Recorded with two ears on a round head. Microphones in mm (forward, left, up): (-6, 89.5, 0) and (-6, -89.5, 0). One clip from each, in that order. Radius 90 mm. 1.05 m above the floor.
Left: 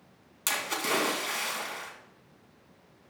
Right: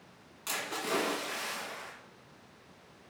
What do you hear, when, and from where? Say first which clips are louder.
0.5 s a splash: left 5 dB; 55° left (ahead or behind), 3.5 m